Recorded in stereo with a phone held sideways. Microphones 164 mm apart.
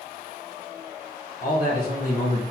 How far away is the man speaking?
About 1.2 m.